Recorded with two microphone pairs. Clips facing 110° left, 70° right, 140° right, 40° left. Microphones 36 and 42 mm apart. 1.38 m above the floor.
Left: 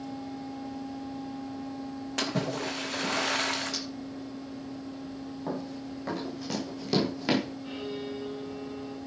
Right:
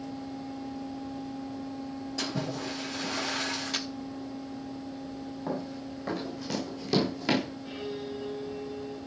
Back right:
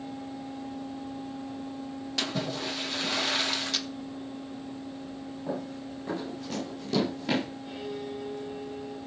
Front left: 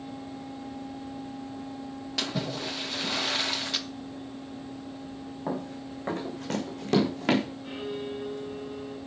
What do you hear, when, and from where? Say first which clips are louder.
2.2 s a splash: left 4 dB, even; 130° left, 1.9 m
3.7 s a camera shutter: right 3 dB, even; 35° right, 1.1 m
5.5 s running footsteps: right 1 dB, front left 2 dB; 15° left, 7 m; by 7.5 s 30° left, 5 m
7.6 s a violin: left 1 dB, front left 2 dB; 50° left, 6.5 m